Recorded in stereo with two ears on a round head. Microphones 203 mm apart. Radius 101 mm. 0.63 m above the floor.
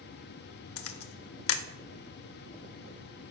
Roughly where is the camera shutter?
Left.